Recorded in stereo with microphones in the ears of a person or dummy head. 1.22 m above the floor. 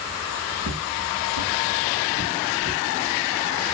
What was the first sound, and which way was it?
Footsteps, 70° right (ahead or behind).